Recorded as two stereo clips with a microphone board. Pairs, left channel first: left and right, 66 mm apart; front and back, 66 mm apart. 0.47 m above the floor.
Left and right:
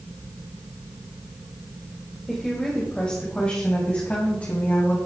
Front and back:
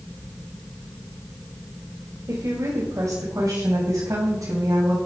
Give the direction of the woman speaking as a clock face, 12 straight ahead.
6 o'clock.